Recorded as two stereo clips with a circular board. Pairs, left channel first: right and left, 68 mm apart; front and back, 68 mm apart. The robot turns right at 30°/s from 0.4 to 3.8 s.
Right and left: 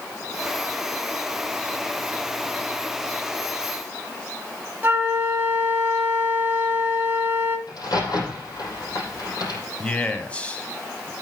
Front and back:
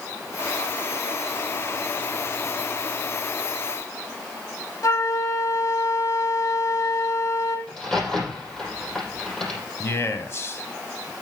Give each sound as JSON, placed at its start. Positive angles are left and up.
{"t": 4.8, "sound": "a flute", "azimuth_deg": 35, "distance_m": 1.7}
{"t": 7.7, "sound": "a crack", "azimuth_deg": -80, "distance_m": 6.0}
{"t": 9.8, "sound": "a man speaking", "azimuth_deg": -30, "distance_m": 1.5}